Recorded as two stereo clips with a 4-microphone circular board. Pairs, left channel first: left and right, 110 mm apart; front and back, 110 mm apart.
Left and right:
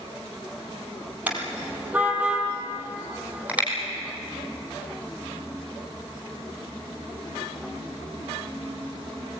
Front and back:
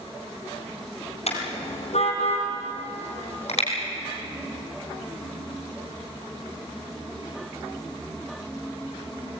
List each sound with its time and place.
1.3 s a car horn: 15° right, 3.5 m; by 3.7 s 10° right, 5 m